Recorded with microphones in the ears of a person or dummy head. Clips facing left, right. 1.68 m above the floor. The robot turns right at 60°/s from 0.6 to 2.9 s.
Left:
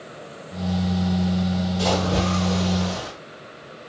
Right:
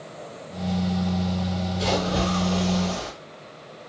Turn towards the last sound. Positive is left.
turn(degrees=155)